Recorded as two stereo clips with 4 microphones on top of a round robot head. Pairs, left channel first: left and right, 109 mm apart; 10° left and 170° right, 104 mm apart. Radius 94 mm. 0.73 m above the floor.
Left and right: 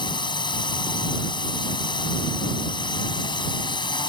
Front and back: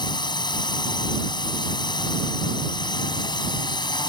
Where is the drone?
50° left.